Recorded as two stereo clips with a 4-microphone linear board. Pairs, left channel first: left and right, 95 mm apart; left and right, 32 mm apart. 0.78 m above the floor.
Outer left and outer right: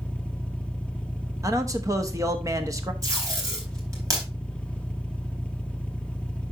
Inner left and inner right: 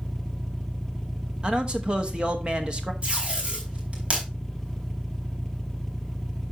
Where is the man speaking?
35° right (ahead or behind), 1.3 m.